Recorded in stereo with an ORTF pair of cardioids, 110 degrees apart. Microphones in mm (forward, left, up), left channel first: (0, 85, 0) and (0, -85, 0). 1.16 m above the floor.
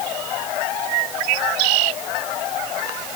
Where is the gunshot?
I don't hear a gunshot.